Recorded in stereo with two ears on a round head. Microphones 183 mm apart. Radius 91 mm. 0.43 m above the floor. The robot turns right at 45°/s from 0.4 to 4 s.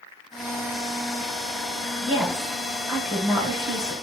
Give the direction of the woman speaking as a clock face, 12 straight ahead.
2 o'clock.